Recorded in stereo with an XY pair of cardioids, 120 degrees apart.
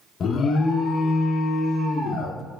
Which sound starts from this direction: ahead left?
An alarm, at 0.2 s.